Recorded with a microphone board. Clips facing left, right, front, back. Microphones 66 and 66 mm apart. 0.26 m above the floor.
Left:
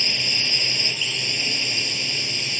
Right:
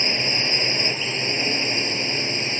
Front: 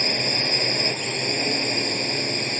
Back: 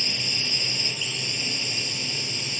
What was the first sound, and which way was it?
A drone, 35° right.